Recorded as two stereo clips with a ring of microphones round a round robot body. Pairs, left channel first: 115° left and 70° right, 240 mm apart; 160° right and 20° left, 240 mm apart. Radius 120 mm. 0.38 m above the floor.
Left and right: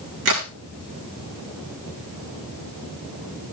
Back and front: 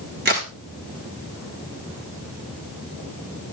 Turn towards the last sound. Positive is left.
turn(degrees=-30)